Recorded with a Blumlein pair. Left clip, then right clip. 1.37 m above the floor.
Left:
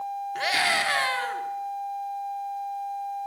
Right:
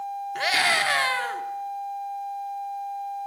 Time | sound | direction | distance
0.3 | a scream | 10° right | 3 m